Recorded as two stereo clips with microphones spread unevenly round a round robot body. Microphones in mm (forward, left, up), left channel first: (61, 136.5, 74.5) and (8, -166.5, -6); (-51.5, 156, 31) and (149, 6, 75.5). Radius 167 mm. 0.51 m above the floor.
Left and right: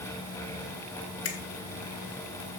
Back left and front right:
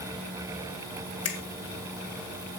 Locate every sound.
1.2 s a finger snap: 135° left, 2.5 m